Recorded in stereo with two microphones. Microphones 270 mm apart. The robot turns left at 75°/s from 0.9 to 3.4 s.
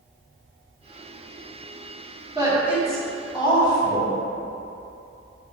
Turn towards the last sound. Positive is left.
turn(degrees=15)  # may be behind; listen again after turning